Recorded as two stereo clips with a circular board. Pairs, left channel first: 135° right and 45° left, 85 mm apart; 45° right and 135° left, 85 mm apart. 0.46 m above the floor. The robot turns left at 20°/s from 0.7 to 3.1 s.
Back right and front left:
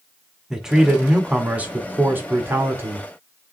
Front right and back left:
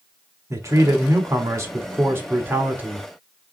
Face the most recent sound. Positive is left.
turn(degrees=75)